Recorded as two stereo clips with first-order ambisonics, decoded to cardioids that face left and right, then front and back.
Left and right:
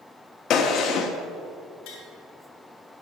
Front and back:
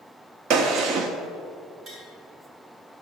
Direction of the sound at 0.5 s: 140° left.